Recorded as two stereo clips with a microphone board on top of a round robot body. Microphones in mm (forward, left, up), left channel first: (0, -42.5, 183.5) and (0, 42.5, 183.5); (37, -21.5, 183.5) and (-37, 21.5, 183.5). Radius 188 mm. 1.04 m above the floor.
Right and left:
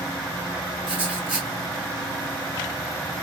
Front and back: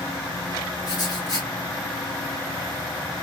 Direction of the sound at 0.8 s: 10° left.